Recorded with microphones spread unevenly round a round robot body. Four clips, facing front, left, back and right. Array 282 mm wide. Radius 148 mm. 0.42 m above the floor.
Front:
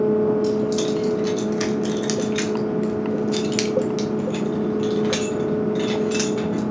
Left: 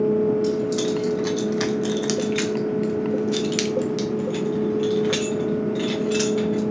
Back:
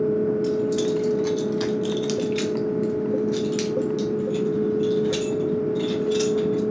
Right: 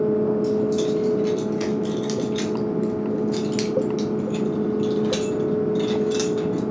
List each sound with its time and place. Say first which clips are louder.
0.4 s keys jangling: right 1 dB, front 2 dB; 100° left, 1.4 m; by 6.6 s 15° right, 2.5 m